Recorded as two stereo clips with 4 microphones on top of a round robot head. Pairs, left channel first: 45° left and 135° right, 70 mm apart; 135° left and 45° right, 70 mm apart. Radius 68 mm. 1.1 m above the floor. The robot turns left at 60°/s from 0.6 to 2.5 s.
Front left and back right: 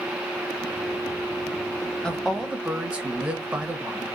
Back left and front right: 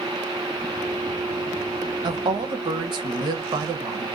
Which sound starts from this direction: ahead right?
A woman speaking, at 2.0 s.